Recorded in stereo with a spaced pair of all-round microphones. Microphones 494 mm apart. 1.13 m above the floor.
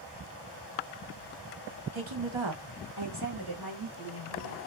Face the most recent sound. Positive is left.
turn(degrees=-40)  # may be behind; listen again after turning